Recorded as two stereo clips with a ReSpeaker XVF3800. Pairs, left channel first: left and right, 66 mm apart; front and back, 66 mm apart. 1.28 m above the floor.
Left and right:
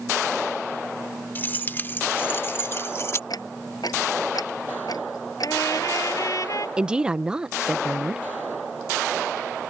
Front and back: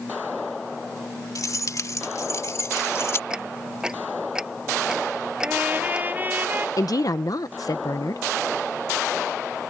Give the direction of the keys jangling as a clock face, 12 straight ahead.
11 o'clock.